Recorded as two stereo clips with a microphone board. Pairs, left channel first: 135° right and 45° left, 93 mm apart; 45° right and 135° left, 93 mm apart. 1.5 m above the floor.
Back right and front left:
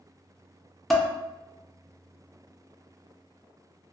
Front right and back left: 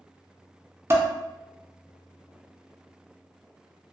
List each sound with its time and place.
0.9 s dishes clattering: 140° left, 0.5 m